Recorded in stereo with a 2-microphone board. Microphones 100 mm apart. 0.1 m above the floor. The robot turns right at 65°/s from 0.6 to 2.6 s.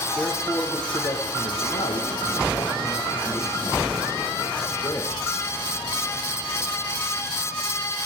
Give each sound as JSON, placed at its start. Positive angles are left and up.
{"t": 0.1, "sound": "a man speaking", "azimuth_deg": 15, "distance_m": 6.0}